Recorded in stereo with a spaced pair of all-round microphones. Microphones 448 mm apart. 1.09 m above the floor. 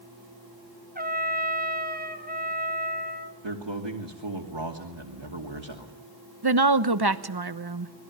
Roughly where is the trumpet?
Centre.